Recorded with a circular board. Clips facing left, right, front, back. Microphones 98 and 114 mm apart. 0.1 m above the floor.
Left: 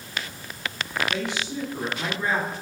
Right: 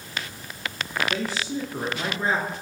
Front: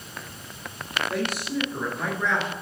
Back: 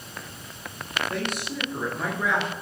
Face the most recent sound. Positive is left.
turn(degrees=-110)